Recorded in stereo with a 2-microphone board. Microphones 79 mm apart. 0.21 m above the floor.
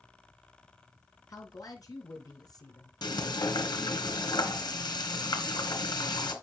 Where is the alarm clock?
I don't hear an alarm clock.